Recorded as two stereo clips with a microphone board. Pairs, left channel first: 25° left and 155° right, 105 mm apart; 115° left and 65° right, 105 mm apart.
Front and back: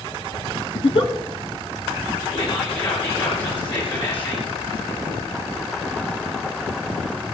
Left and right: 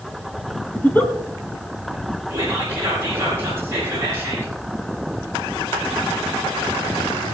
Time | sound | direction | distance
0.8 | a giggle | 40° left | 2.0 m
2.3 | whispering | 5° right | 4.5 m